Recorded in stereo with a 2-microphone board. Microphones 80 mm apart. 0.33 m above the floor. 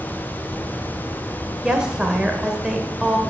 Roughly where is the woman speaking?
Centre.